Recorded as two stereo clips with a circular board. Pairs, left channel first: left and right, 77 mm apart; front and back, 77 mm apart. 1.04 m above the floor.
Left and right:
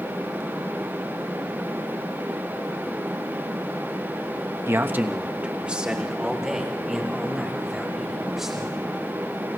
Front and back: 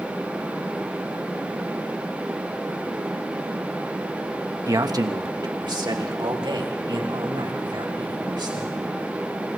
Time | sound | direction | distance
4.7 | a man speaking | 140° right | 1.1 m